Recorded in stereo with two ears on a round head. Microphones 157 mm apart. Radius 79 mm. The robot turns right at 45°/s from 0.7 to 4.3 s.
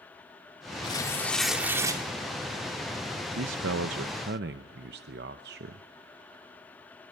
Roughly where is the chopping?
I don't hear chopping.